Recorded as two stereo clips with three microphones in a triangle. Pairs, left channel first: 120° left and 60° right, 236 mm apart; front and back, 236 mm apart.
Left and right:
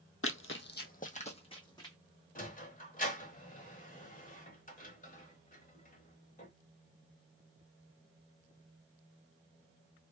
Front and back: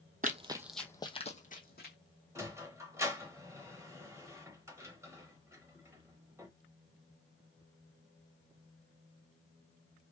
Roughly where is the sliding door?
Left.